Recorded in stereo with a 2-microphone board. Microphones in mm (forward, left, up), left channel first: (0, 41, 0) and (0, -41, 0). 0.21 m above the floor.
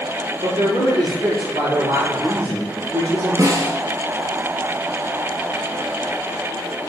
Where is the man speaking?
75° right (ahead or behind), 6.5 m.